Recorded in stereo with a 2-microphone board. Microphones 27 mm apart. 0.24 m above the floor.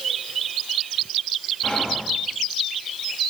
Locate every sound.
1.6 s whispering: 45° left (ahead or behind), 2.5 m